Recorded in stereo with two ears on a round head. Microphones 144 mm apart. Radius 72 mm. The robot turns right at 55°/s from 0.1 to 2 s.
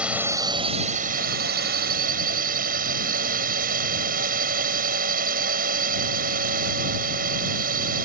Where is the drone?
170° right; by 8.1 s 65° right.